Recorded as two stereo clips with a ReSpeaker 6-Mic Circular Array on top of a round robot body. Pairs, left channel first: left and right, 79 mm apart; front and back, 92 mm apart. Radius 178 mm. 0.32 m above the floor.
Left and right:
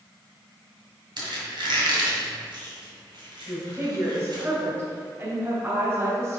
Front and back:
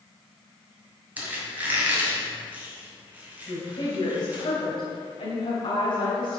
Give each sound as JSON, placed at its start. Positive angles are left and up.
{"t": 1.2, "sound": "a squeak", "azimuth_deg": -110, "distance_m": 2.0}
{"t": 3.5, "sound": "a woman speaking", "azimuth_deg": -30, "distance_m": 2.5}